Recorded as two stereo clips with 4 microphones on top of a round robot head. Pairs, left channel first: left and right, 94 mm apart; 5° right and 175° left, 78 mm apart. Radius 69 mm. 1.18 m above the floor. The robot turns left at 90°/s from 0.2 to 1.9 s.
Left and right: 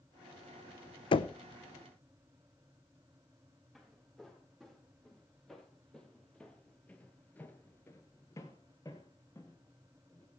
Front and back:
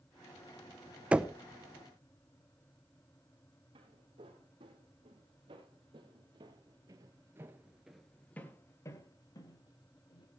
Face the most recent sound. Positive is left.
turn(degrees=15)